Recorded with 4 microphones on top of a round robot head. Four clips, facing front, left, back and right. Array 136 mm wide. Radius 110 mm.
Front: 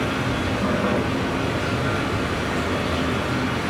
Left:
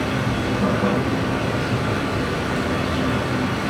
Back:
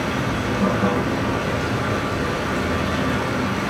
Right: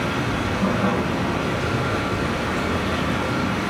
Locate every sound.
0.0 s running water: 145° left, 1.8 m